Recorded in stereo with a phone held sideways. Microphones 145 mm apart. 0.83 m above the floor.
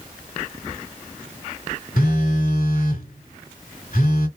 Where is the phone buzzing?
75° left (ahead or behind), 2 m.